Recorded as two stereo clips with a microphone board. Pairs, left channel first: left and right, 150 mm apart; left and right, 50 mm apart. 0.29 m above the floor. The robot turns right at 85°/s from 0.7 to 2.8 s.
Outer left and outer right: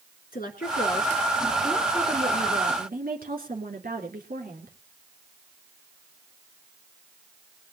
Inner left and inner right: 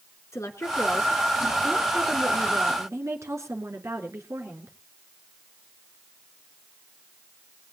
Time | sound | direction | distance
0.3 | a woman speaking | 90° left | 3.5 m